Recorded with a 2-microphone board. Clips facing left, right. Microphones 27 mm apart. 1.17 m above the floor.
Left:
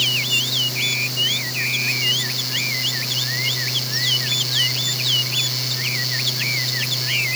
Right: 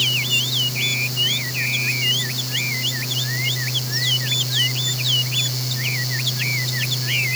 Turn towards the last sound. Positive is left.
No sound to turn to.